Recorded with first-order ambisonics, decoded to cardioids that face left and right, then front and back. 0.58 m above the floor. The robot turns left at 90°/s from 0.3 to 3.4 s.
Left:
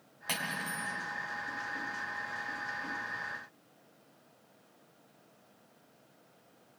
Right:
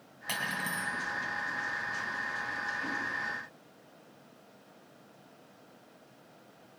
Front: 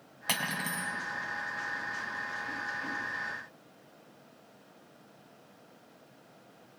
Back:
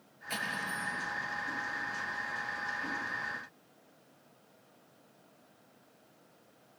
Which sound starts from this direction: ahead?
Cutlery clinking, at 0.3 s.